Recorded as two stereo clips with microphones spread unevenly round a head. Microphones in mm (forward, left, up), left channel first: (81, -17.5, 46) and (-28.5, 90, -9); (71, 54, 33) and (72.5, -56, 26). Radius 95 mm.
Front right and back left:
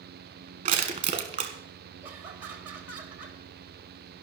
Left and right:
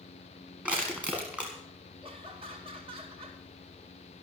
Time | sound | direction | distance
0.7 | crushing | 170° right | 1.5 m
2.0 | laughter | 145° right | 2 m